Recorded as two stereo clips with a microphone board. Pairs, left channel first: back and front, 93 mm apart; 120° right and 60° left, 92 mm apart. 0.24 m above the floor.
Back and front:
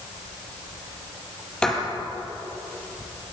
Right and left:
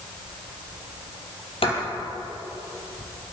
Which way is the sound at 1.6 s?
100° right.